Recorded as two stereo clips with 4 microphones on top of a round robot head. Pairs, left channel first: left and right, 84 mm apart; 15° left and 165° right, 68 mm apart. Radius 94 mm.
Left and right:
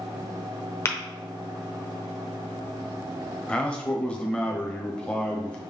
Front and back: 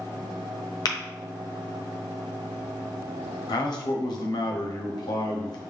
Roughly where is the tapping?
Ahead left.